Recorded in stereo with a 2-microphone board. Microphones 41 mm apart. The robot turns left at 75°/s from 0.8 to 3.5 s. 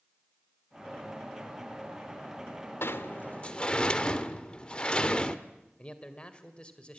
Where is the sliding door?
75° left, 1.3 m; by 5.4 s 25° left, 1.3 m.